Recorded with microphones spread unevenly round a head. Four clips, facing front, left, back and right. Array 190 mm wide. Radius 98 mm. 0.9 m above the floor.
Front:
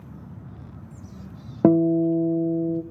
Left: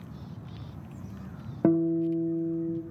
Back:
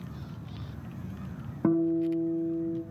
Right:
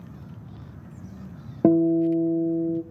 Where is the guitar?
35° right, 0.5 m.